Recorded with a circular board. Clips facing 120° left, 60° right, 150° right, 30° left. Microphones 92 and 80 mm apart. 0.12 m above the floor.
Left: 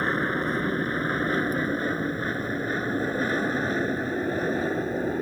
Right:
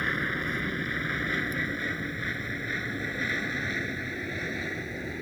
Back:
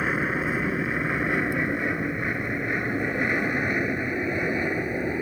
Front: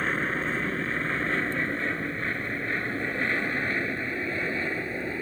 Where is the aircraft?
135° left; by 5.2 s 140° left.